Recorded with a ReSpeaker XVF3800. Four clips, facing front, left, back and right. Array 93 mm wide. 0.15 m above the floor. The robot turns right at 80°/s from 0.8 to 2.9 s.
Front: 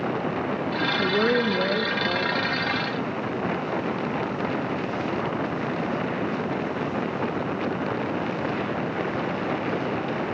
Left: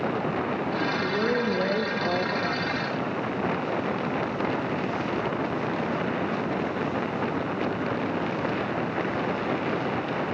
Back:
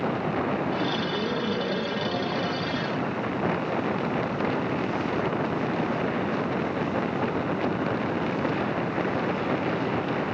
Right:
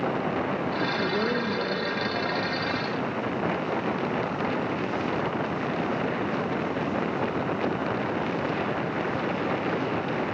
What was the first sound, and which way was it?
A woman speaking, 15° right.